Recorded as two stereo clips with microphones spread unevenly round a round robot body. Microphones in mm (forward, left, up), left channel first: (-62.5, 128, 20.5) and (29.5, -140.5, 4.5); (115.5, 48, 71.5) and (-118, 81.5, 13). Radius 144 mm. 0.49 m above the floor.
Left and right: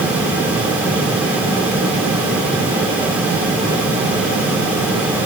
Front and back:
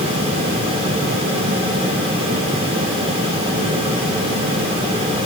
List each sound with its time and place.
Only background noise.